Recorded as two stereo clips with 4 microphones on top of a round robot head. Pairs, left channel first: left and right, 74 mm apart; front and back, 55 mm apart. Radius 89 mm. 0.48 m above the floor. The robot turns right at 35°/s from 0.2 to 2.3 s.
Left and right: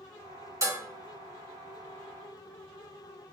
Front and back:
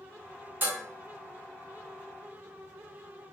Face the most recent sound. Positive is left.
turn(degrees=-70)